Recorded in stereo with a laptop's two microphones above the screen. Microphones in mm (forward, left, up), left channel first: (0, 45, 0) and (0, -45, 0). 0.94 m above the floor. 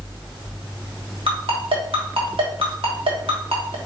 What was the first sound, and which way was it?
A ringtone, 80° right.